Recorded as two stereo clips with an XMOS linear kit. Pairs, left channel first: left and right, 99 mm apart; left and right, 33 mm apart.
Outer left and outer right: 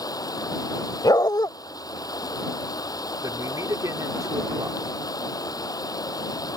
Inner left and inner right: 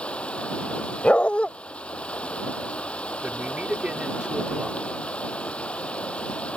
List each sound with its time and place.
0.0 s running water: 40° left (ahead or behind)
1.0 s a dog barking: 45° left (ahead or behind)
3.2 s a man speaking: 35° right (ahead or behind)